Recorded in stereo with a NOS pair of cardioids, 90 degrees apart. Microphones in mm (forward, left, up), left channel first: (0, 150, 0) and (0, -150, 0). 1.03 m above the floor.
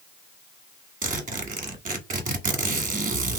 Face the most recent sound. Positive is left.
turn(degrees=-25)